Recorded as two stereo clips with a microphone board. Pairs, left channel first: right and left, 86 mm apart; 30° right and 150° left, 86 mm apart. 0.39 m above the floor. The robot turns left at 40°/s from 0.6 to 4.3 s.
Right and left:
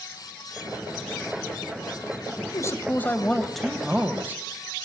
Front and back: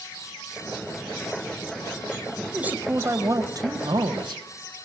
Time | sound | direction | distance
2.4 | a man speaking | 130° right | 2 m